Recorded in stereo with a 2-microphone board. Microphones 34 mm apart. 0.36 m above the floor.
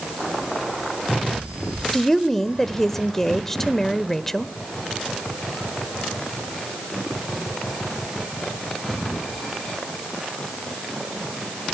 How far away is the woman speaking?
About 1.0 m.